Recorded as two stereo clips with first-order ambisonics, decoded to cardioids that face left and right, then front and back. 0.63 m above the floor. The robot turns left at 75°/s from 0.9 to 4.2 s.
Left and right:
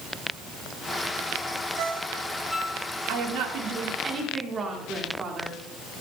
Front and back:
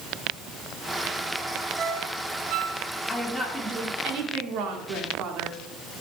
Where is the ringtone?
115° right, 1.7 m; by 2.8 s 165° left, 1.7 m.